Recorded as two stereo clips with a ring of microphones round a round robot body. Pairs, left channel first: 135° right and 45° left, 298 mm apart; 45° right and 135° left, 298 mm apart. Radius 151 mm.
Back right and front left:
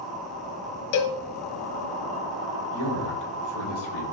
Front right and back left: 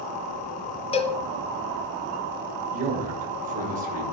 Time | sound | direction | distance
0.9 | a cowbell | 115° right | 0.8 m
2.7 | a man speaking | 160° right | 7.5 m